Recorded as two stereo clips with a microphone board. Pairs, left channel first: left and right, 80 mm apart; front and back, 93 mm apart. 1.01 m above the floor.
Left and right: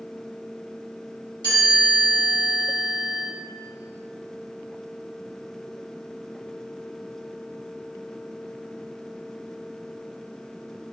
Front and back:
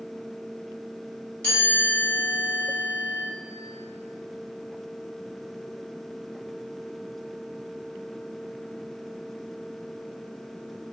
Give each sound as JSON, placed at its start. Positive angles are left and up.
{"t": 1.4, "sound": "a chime", "azimuth_deg": -75, "distance_m": 1.8}